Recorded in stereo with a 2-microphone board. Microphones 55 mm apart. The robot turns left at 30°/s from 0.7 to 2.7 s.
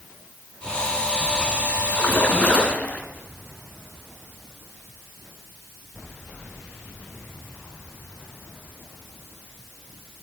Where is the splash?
35° left (ahead or behind), 1.8 m; by 3.1 s 20° left (ahead or behind), 1.8 m.